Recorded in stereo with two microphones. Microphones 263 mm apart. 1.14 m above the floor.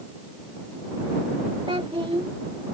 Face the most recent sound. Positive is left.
turn(degrees=-20)  # may be behind; listen again after turning